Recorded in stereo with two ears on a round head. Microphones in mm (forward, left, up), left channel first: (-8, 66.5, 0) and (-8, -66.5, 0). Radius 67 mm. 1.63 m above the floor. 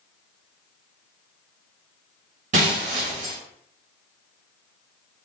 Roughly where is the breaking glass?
Right.